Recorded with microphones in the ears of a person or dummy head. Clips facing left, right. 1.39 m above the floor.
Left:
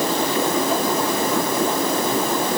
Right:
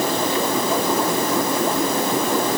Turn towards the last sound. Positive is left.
No sound to turn to.